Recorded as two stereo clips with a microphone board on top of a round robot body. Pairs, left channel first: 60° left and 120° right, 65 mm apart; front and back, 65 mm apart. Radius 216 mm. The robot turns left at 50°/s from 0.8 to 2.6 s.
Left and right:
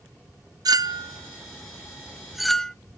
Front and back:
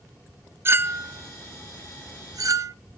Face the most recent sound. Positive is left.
turn(degrees=145)